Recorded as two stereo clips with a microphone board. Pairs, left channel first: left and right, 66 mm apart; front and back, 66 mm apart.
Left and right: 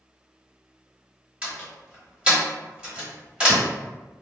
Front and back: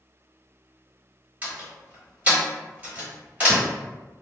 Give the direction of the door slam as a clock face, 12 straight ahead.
5 o'clock.